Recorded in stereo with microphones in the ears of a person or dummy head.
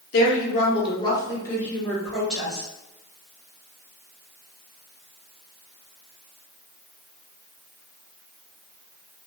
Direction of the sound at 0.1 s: 50° left (ahead or behind).